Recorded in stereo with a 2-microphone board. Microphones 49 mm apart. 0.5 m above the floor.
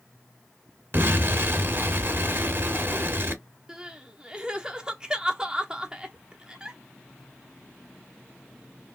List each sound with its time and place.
0.9 s an explosion: 45° right (ahead or behind), 1.8 m
3.7 s crying: 15° right (ahead or behind), 0.9 m